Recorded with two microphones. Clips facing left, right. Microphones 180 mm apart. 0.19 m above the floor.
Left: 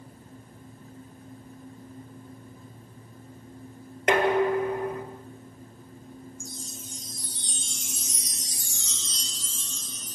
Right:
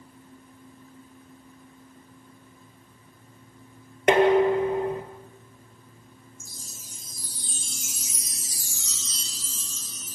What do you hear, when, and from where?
4.1 s dishes clattering: 25° right (ahead or behind), 2.5 m
6.4 s a chime: 5° right (ahead or behind), 0.8 m